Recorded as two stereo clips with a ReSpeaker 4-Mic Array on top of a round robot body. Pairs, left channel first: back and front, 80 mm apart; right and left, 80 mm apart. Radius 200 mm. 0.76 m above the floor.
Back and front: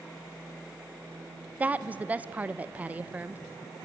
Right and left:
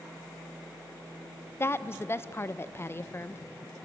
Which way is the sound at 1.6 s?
60° right.